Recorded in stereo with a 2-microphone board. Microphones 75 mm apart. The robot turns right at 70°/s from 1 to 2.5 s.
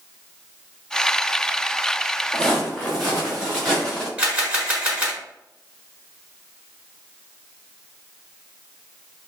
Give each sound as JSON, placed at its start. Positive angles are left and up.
{"t": 2.3, "sound": "footsteps", "side_deg": -15, "distance_m": 2.0}
{"t": 4.2, "sound": "a camera shutter", "side_deg": -15, "distance_m": 1.5}